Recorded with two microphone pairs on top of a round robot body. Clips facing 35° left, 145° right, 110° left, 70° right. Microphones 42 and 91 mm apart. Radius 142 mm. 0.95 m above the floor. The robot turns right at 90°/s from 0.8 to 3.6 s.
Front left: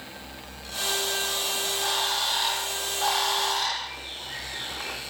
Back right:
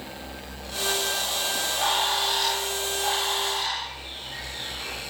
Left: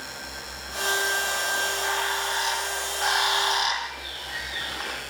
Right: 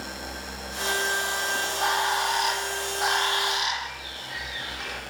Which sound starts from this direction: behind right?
A bird, at 1.6 s.